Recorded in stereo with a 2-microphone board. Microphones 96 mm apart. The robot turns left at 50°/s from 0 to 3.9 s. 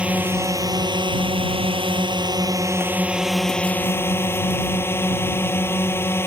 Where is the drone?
10° right; by 6.3 s 155° left.